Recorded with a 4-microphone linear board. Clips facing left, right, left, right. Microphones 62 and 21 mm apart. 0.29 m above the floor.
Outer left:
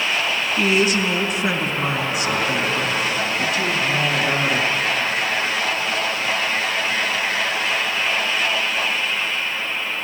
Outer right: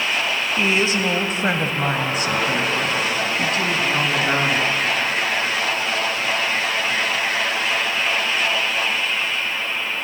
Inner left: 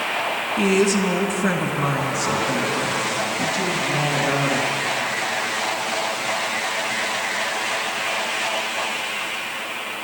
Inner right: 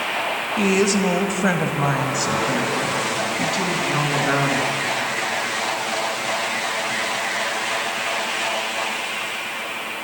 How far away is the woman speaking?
About 1.1 m.